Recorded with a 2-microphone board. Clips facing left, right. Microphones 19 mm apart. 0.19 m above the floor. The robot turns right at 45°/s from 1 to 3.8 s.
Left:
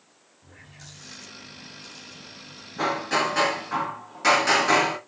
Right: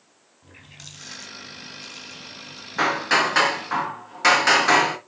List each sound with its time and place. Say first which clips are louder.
0.4 s a running tap: right 4 dB; 130° right, 3.5 m; by 2.7 s 55° right, 3.5 m
2.8 s hammering: right 4 dB; 85° right, 2.5 m; by 5.0 s 40° right, 2.5 m